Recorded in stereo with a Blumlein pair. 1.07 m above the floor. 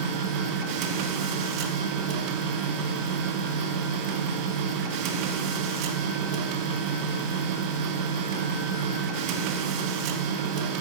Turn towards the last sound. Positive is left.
turn(degrees=-40)